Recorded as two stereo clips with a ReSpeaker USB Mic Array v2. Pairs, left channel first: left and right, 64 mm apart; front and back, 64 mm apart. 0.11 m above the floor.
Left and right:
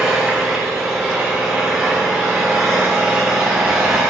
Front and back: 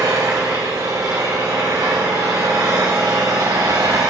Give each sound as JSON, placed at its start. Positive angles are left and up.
{"t": 0.0, "sound": "an engine running", "azimuth_deg": -170, "distance_m": 4.0}